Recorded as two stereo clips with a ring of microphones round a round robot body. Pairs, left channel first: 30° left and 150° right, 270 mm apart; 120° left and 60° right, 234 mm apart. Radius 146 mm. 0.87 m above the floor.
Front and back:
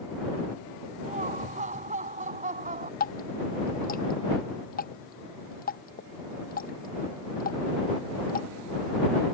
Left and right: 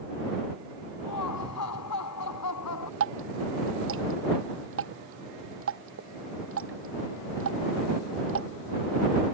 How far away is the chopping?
I don't hear chopping.